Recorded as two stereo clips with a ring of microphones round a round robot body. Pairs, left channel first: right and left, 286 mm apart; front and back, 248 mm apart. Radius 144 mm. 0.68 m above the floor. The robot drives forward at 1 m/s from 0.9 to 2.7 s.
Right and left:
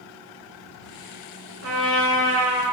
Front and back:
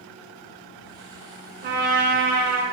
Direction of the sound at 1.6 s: 130° left.